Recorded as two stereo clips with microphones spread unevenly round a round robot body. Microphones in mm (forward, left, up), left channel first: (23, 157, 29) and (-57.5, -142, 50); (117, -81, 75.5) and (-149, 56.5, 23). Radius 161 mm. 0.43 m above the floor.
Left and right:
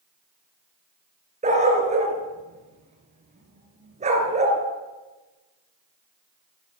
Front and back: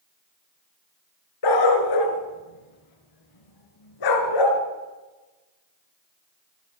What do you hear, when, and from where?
1.4 s a dog barking: 35° right, 2 m